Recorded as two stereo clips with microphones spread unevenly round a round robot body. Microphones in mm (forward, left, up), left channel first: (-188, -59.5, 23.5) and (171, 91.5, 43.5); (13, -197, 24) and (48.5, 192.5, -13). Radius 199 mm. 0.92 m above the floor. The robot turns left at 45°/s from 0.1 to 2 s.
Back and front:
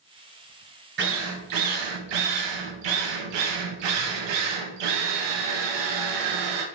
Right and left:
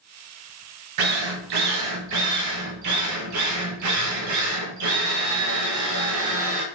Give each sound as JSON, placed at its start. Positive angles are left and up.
{"t": 1.0, "sound": "a drill", "azimuth_deg": 85, "distance_m": 0.7}